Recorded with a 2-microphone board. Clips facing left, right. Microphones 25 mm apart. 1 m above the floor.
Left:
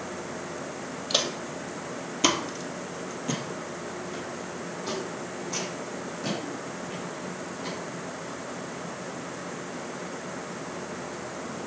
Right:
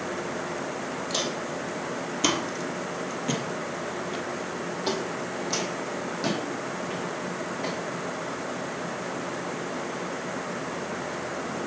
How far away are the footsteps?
About 1.6 m.